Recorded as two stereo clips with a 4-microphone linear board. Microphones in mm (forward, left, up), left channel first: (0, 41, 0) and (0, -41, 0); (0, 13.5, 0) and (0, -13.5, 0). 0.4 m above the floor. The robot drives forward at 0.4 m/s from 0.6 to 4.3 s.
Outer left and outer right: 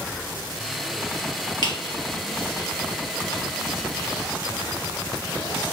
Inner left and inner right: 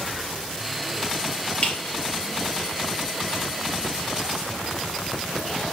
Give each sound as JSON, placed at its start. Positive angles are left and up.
{"t": 1.6, "sound": "a squeak", "side_deg": 55, "distance_m": 3.5}